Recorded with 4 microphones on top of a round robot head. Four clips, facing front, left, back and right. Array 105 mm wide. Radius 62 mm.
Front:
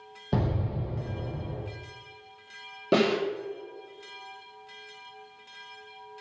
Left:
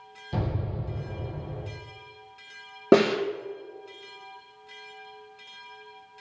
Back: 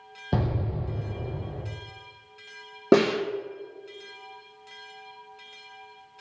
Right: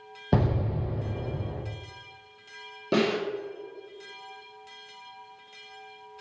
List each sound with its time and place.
0.3 s an explosion: 100° right, 0.7 m
2.9 s a snare drum: 125° left, 1.7 m